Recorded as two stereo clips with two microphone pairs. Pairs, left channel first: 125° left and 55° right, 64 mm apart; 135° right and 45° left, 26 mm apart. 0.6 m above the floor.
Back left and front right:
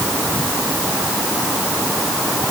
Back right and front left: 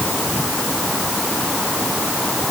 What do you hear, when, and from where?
Only background noise.